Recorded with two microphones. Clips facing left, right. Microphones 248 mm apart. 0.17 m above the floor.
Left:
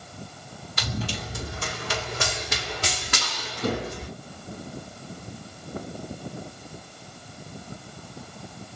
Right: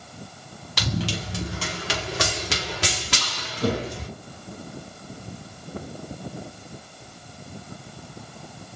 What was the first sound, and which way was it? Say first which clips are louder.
Running footsteps: right 4 dB; 85° right.